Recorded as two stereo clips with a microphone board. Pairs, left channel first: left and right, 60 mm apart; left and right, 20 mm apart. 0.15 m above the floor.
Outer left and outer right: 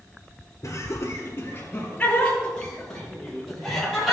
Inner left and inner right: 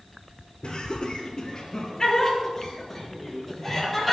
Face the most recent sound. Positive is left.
turn(degrees=-5)  # may be behind; listen again after turning